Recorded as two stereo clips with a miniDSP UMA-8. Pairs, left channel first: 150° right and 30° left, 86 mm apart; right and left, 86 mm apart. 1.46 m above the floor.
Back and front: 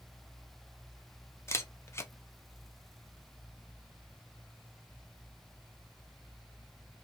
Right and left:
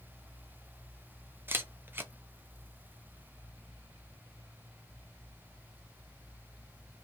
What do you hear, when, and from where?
1.5 s a camera shutter: 155° left, 0.6 m